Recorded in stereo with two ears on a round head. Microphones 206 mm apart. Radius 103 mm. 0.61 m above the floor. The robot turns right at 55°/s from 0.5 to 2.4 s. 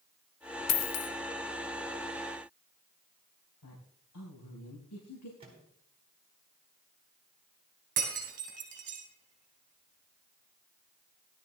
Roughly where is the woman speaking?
Left.